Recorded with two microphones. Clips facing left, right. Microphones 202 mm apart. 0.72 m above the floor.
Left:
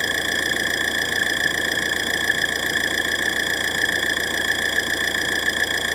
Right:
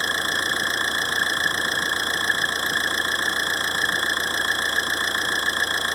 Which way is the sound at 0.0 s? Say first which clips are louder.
Left 3 dB; 15° left (ahead or behind).